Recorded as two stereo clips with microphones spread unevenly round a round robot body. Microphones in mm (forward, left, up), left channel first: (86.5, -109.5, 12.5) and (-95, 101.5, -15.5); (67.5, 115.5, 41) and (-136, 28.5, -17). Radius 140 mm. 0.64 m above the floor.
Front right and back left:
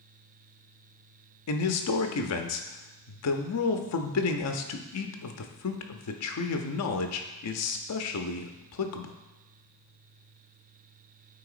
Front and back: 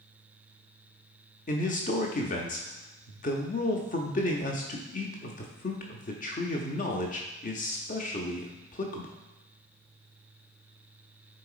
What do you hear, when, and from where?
1.5 s a man speaking: 40° right, 0.7 m